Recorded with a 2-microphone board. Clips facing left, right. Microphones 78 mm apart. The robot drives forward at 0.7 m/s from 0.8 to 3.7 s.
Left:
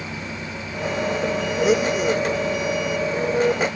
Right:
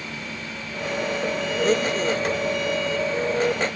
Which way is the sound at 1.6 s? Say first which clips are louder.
Left 3 dB; 10° left (ahead or behind).